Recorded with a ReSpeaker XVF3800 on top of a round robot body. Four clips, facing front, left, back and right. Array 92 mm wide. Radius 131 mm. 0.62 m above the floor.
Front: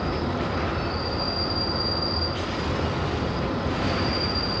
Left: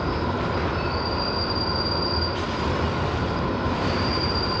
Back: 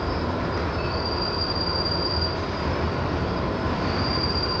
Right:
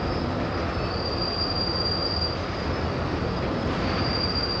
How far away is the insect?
About 10 m.